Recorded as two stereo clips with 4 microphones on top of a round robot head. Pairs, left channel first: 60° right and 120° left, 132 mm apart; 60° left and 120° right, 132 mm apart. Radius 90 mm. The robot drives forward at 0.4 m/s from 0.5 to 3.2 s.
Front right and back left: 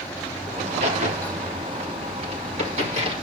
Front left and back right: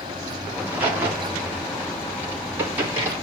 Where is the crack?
160° left, 3.5 m; by 3.1 s 165° left, 4.5 m.